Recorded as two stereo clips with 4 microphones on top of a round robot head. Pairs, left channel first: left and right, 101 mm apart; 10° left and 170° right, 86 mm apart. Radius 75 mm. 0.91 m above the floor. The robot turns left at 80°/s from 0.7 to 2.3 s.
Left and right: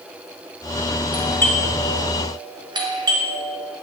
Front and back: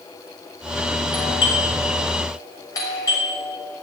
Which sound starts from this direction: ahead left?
A doorbell, at 1.1 s.